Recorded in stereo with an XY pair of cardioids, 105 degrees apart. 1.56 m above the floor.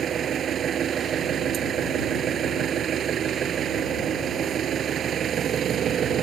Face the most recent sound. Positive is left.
turn(degrees=-55)